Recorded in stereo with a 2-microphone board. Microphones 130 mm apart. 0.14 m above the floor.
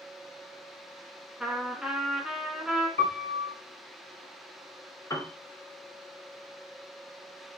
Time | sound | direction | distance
1.4 | a trumpet | 5° right (ahead or behind) | 0.7 m
3.0 | a piano | 65° right (ahead or behind) | 0.7 m
5.1 | a piano | 25° left (ahead or behind) | 0.6 m